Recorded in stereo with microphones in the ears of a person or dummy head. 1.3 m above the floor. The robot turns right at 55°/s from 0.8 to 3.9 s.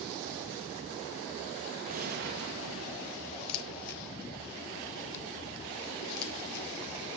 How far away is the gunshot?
About 1.6 m.